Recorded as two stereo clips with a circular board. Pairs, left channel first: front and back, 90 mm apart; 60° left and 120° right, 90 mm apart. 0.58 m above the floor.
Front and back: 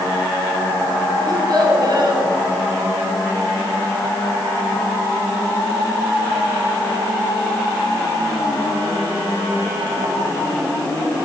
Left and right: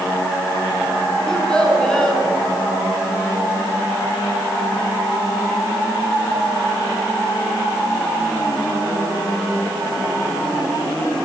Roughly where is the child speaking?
Behind left.